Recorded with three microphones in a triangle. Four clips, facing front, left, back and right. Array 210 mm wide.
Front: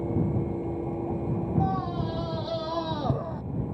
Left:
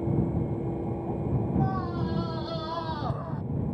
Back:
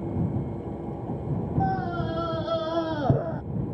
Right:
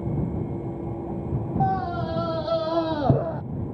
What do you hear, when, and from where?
1.6 s a scream: 110° right